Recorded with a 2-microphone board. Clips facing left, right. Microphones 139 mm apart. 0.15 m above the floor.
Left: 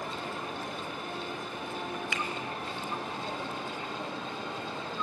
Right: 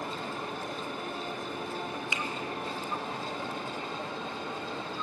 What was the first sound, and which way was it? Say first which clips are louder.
A finger snap: even; 20° right (ahead or behind).